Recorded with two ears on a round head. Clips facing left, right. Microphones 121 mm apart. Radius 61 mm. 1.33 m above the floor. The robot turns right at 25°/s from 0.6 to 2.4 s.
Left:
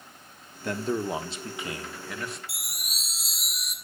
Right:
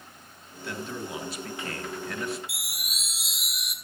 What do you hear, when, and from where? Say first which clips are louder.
0.6 s a man speaking: left 7 dB; 140° left, 1.3 m; by 2.4 s 175° right, 1.3 m
2.5 s a chime: right 1 dB; 35° left (ahead or behind), 1.5 m